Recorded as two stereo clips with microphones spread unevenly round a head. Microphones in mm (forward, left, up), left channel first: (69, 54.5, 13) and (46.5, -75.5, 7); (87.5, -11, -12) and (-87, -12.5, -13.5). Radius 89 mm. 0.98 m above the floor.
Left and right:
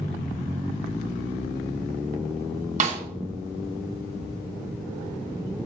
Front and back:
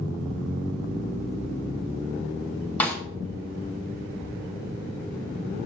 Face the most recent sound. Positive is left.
turn(degrees=-80)